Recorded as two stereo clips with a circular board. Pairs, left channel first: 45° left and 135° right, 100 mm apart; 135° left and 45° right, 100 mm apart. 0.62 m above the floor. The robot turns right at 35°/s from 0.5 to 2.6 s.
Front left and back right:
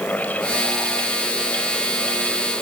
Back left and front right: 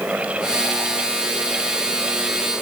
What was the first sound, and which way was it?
Only background noise.